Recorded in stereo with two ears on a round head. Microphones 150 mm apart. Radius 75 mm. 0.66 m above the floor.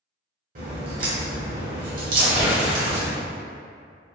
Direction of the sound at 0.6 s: 55° right (ahead or behind).